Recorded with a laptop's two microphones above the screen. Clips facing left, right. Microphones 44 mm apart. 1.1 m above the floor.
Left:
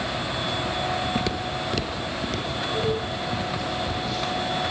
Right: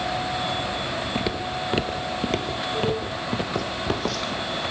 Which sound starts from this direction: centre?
Footsteps, at 1.1 s.